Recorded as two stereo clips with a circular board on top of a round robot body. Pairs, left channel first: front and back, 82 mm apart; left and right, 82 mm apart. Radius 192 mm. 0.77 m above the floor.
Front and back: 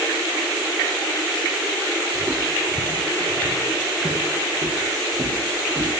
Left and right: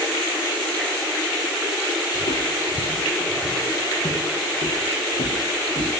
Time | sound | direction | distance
2.1 | footsteps | 100° left | 3 m